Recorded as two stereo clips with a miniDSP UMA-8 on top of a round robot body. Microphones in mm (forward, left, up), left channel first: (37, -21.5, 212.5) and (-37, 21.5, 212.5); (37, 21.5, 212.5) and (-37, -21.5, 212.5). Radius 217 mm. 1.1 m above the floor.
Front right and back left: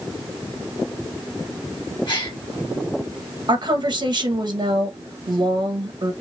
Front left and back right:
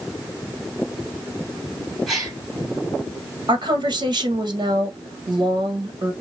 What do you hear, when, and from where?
2.1 s a gasp: 60° right, 2.5 m
3.5 s a woman speaking: 175° right, 1.1 m